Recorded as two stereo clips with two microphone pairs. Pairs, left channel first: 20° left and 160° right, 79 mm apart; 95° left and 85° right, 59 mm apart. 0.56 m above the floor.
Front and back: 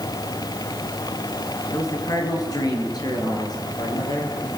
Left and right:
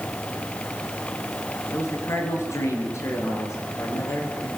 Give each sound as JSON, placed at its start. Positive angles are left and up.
{"t": 1.7, "sound": "a man speaking", "azimuth_deg": 65, "distance_m": 6.5}